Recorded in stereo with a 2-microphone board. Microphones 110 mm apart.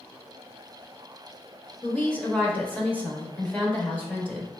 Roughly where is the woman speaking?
Centre.